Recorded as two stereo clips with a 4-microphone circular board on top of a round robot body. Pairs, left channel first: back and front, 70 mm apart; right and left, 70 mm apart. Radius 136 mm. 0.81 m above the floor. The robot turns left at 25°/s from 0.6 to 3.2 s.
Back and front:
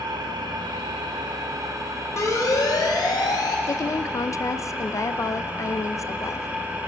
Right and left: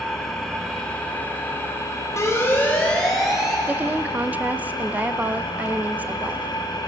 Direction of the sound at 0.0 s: 5° right.